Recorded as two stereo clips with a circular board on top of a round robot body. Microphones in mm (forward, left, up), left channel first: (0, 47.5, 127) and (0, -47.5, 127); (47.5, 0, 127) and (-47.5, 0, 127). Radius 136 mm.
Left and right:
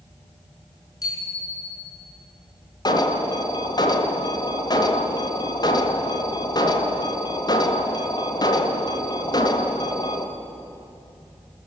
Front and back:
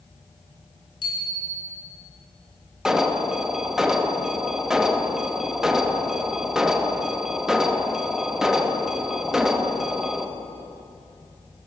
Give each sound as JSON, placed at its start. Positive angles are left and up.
{"t": 1.0, "sound": "a bicycle bell", "azimuth_deg": 40, "distance_m": 7.0}
{"t": 2.9, "sound": "an alarm", "azimuth_deg": 95, "distance_m": 2.0}